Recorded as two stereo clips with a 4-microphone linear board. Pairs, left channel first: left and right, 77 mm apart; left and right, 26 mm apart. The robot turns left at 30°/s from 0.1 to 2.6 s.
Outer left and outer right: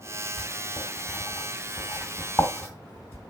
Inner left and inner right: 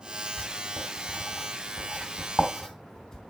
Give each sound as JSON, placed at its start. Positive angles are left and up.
{"t": 0.4, "sound": "writing", "side_deg": 45, "distance_m": 2.5}